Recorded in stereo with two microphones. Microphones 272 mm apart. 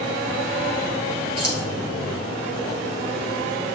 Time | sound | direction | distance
1.4 | keys jangling | 55° right (ahead or behind) | 1.7 m